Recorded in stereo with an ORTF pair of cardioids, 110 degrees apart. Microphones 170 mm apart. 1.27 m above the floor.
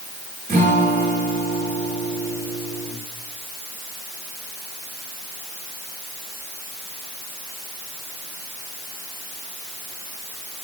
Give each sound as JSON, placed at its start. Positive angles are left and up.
{"t": 0.5, "sound": "a guitar", "azimuth_deg": -55, "distance_m": 8.5}